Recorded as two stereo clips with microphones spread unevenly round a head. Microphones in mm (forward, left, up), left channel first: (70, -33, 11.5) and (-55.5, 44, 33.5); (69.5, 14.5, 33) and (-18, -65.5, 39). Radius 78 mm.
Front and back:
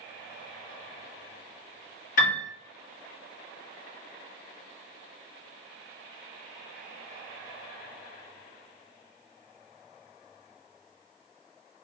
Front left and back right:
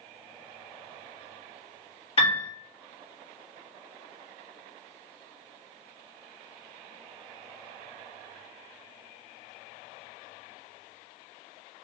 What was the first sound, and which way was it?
A piano, straight ahead.